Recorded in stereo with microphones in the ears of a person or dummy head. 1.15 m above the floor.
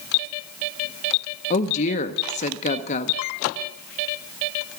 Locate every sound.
1.5 s a woman speaking: 35° left (ahead or behind), 0.7 m